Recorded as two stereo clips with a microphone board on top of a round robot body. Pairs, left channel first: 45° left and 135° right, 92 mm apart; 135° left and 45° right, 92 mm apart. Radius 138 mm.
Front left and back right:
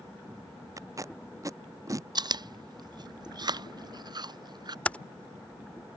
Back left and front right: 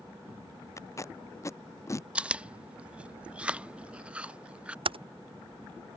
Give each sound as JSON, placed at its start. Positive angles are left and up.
{"t": 0.8, "sound": "tape being pulled", "azimuth_deg": 180}
{"t": 2.1, "sound": "chewing", "azimuth_deg": -120}
{"t": 4.8, "sound": "typing on a keyboard", "azimuth_deg": -30}